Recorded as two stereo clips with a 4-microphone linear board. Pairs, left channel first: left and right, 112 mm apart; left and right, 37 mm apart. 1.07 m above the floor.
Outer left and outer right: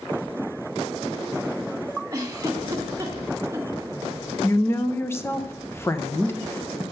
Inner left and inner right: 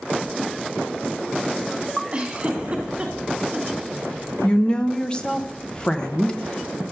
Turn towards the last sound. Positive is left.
turn(degrees=25)  # may be behind; listen again after turning